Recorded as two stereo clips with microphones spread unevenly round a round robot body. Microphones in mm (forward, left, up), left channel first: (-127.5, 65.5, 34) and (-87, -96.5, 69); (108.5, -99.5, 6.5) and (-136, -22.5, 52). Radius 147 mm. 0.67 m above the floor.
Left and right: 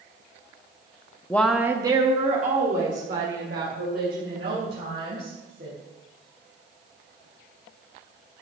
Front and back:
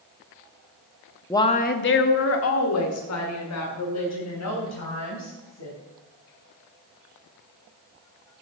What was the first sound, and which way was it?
A woman speaking, 45° left.